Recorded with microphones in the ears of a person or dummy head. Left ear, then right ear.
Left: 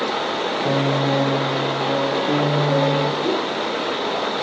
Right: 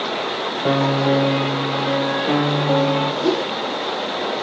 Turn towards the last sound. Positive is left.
turn(degrees=-35)  # may be behind; listen again after turning